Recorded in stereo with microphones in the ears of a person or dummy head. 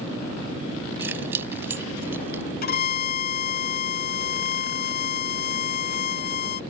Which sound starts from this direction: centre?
Keys jangling, at 1.0 s.